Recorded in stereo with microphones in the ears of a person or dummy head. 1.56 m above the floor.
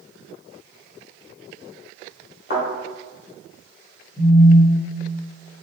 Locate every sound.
2.5 s a thud: 60° left (ahead or behind), 1.8 m
4.2 s a phone buzzing: 20° left (ahead or behind), 1.4 m